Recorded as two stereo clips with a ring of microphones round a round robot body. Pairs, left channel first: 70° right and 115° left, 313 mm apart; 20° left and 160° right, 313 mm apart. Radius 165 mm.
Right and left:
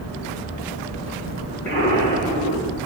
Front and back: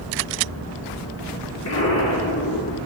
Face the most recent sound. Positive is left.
turn(degrees=-20)